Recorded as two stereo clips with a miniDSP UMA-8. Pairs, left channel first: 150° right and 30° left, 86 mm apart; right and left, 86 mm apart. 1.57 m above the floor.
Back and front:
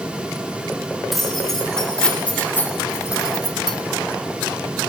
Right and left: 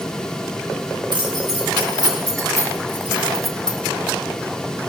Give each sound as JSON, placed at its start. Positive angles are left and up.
{"t": 1.1, "sound": "keys jangling", "azimuth_deg": 120, "distance_m": 2.5}